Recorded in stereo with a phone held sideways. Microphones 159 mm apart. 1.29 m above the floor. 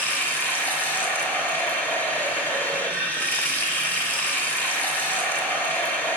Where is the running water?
10° left (ahead or behind), 1.1 m.